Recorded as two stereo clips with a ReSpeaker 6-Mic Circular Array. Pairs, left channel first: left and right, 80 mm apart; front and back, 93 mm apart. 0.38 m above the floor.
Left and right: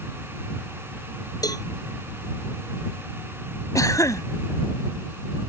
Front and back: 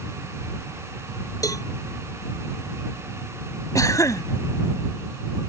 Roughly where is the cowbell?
Ahead left.